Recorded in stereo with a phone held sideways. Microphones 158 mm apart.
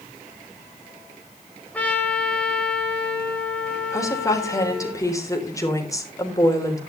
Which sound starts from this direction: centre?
A trumpet, at 1.7 s.